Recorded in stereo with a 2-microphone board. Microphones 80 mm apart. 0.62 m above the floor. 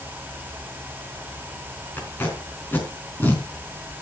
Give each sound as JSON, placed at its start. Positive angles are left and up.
{"t": 2.0, "sound": "tape being pulled", "side_deg": 25, "distance_m": 4.0}